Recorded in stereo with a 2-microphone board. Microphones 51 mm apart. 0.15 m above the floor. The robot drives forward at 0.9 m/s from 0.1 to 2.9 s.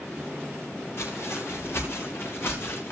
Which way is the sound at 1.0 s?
55° left (ahead or behind).